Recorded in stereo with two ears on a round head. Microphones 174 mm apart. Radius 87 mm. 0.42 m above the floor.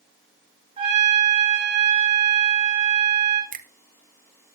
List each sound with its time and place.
0.8 s a trumpet: 30° right (ahead or behind), 3.5 m
3.5 s a finger snap: 45° right (ahead or behind), 0.9 m